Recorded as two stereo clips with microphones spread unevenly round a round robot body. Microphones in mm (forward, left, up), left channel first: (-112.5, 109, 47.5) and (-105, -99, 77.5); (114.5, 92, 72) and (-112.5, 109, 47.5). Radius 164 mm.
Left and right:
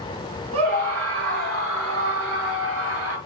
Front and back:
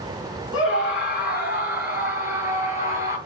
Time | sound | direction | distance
0.5 | a scream | 55° right | 4.5 m